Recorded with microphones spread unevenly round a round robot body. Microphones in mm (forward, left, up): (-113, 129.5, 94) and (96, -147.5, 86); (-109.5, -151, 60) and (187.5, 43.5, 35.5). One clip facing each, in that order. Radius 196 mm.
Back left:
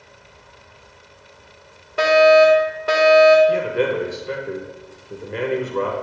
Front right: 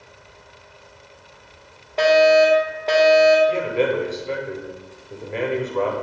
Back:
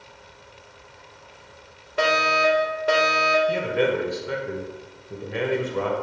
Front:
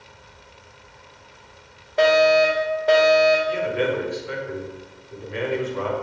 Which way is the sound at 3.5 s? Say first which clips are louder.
Back left 1 dB, back 1 dB; 170° right.